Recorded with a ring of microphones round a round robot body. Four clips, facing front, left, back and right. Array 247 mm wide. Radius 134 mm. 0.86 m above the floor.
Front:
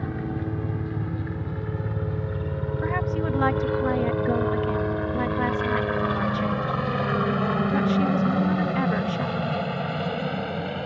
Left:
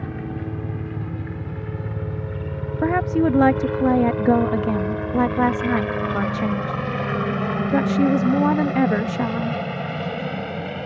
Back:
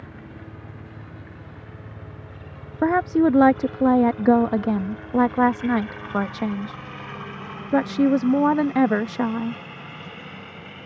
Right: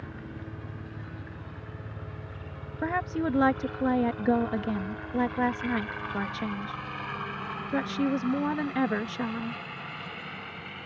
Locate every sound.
0.0 s a helicopter: 45° left; by 10.9 s 50° left
2.8 s a woman speaking: 145° left